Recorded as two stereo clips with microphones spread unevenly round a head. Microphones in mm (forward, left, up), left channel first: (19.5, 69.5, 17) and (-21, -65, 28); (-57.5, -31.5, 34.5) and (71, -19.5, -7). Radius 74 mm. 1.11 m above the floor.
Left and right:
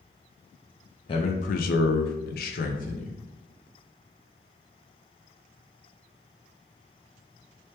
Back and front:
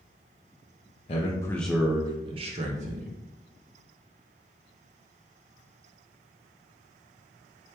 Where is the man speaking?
130° left, 0.5 m; by 3.2 s 35° left, 1.0 m.